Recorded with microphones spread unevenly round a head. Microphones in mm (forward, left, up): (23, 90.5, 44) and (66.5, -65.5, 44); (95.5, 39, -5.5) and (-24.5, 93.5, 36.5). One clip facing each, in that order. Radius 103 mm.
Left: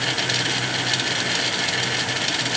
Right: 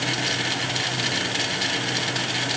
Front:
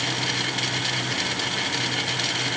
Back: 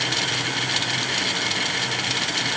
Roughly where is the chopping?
No chopping in this recording.